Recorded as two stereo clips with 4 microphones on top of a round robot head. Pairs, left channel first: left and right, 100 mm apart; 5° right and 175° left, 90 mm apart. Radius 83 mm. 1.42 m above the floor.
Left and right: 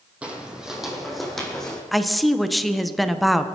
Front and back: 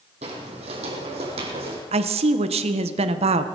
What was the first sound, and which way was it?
Footsteps, 165° right.